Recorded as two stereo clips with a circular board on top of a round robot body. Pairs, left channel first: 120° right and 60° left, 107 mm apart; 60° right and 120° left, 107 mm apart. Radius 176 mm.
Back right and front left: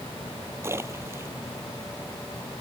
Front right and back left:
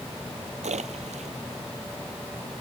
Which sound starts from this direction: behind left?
A splash, at 0.6 s.